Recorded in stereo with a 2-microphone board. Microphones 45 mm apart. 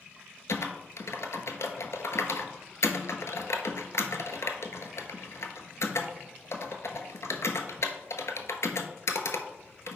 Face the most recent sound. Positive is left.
turn(degrees=80)